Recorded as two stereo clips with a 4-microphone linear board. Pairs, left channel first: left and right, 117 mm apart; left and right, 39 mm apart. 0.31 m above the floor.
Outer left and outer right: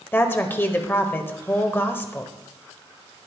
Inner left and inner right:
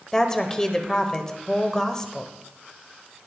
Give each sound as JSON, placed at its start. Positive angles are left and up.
{"t": 0.1, "sound": "a woman speaking", "side_deg": 20, "distance_m": 1.2}